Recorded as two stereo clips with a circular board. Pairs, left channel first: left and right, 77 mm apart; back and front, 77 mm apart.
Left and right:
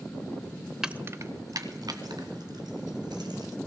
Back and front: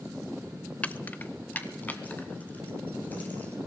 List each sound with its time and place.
0.8 s keys jangling: 155° right, 0.5 m; by 3.6 s 110° right, 4 m